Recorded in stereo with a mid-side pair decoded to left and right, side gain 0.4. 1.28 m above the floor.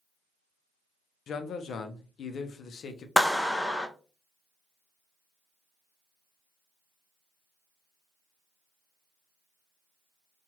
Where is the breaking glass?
I don't hear breaking glass.